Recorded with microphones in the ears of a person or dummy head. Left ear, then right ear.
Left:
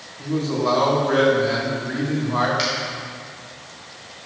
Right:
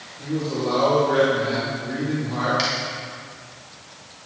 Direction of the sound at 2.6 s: Centre (ahead or behind).